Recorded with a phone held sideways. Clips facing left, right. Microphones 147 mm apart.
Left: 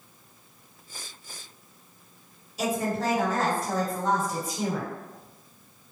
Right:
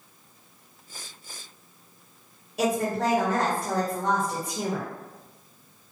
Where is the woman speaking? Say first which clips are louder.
Right 3 dB; 60° right (ahead or behind), 1.8 m.